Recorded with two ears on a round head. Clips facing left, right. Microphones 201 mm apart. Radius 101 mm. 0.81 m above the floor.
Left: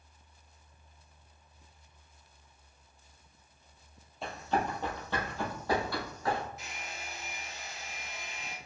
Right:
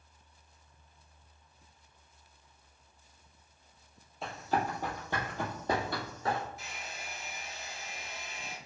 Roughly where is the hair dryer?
Centre.